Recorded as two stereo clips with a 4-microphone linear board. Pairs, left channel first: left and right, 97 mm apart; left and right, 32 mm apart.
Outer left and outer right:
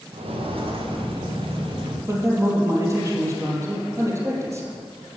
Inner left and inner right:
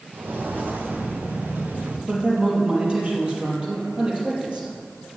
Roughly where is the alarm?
No alarm in this recording.